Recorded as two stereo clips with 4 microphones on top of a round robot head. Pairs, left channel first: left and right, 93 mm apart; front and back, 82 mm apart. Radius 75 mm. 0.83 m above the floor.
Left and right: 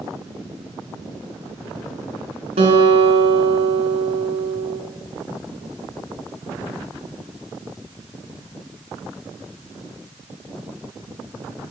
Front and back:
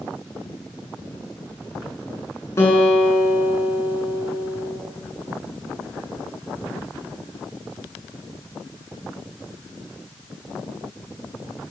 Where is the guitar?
65° right, 6.5 m.